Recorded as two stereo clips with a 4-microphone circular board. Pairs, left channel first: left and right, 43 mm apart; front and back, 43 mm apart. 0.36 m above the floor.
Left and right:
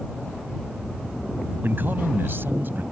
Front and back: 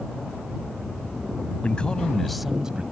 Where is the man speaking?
60° right; by 2.8 s 115° right.